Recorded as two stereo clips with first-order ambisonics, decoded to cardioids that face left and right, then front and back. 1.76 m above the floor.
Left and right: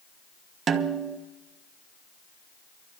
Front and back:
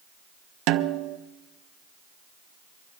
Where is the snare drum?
155° right, 0.7 m.